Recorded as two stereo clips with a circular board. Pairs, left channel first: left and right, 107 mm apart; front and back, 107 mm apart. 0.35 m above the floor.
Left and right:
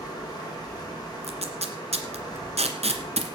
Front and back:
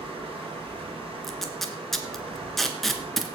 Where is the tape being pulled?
90° right, 1.8 m.